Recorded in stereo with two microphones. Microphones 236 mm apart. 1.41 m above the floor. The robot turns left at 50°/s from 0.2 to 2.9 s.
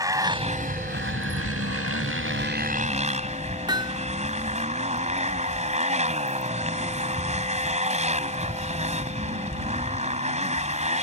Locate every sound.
0.0 s a motorcycle: 15° right; by 11.0 s 150° right
3.7 s hammering: 20° right (ahead or behind)